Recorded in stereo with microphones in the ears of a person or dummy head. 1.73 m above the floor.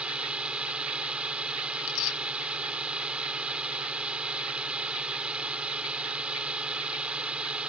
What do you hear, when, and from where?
0.0 s a drone: 5° right (ahead or behind)
1.7 s tearing paper: 75° left (ahead or behind)